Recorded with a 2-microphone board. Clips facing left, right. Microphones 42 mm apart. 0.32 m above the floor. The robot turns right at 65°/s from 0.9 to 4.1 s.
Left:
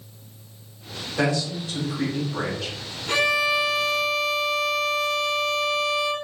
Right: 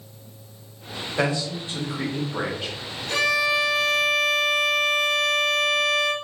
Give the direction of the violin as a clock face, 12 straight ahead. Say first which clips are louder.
Even; 8 o'clock.